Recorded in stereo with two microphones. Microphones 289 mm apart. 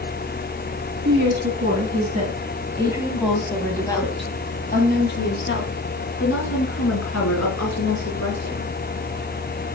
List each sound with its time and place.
1.1 s a woman speaking: 40° right (ahead or behind), 1.9 m; by 8.7 s 65° left (ahead or behind), 3.5 m